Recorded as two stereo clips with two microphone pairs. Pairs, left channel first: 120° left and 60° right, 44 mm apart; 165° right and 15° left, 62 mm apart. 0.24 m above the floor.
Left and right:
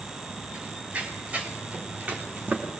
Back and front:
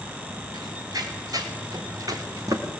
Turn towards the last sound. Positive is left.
turn(degrees=-15)